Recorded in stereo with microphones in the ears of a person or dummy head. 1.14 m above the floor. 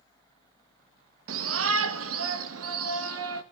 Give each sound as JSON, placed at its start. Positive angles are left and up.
{"t": 1.3, "sound": "a shout", "side_deg": -70, "distance_m": 1.5}